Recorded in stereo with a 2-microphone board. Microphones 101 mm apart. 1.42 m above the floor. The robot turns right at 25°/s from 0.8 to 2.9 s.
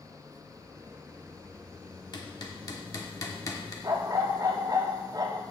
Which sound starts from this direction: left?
Hammering, at 2.1 s.